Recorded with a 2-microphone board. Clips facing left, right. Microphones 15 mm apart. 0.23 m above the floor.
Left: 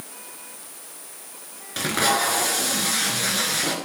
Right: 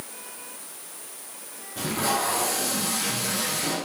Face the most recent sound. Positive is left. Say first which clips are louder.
# left 4 dB
turn(degrees=70)  # may be behind; listen again after turning